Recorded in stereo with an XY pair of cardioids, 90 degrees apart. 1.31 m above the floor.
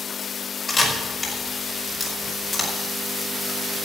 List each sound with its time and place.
0.7 s a camera shutter: 25° left, 5 m